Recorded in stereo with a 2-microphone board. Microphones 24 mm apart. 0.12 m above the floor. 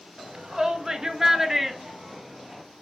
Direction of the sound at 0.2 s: 20° right (ahead or behind).